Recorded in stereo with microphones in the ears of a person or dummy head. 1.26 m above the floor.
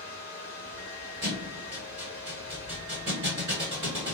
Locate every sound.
0.0 s running water: 50° left (ahead or behind), 1.8 m
1.2 s a thud: 15° right (ahead or behind), 1.4 m